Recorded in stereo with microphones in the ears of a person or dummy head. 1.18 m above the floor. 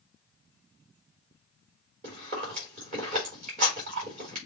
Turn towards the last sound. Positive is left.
turn(degrees=-45)  # may be behind; listen again after turning